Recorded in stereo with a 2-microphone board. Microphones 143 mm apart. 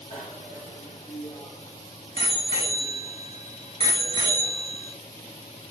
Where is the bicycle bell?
50° left (ahead or behind), 6.5 m; by 5.0 s 45° left (ahead or behind), 3.5 m.